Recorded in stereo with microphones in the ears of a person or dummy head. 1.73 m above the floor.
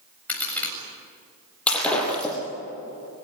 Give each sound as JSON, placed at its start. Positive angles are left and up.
{"t": 0.3, "sound": "a crack", "side_deg": 10, "distance_m": 7.5}
{"t": 1.7, "sound": "breaking glass", "side_deg": 5, "distance_m": 6.0}